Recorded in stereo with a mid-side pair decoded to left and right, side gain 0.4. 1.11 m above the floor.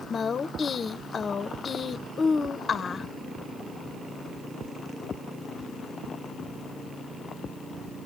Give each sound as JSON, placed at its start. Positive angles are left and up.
{"t": 0.1, "sound": "a woman speaking", "azimuth_deg": 50, "distance_m": 0.6}